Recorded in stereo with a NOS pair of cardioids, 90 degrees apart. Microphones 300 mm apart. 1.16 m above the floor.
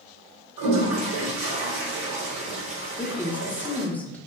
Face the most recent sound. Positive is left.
turn(degrees=5)